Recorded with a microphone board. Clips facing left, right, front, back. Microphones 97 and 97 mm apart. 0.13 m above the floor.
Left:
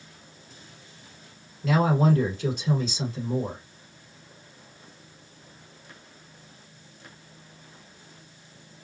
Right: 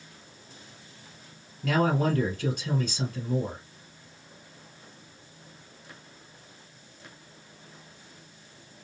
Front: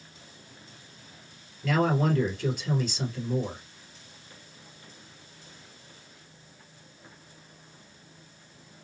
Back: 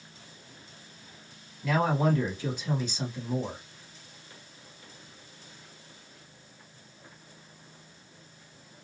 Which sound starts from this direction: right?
A man speaking, at 1.6 s.